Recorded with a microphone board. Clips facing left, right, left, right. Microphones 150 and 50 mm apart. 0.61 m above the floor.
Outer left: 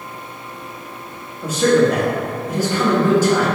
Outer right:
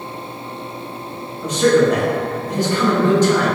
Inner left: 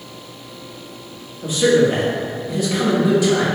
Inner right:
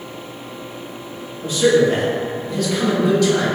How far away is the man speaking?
About 0.7 m.